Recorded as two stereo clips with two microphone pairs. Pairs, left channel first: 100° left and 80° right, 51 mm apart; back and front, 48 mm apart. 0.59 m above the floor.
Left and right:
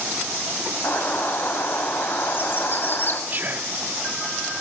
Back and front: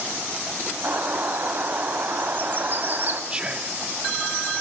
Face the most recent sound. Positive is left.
turn(degrees=-55)